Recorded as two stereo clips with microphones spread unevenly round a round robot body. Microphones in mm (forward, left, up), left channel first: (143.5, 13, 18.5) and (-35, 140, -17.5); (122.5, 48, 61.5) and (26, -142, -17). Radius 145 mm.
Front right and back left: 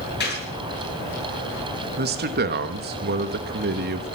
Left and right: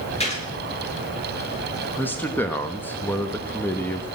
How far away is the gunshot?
About 9.5 m.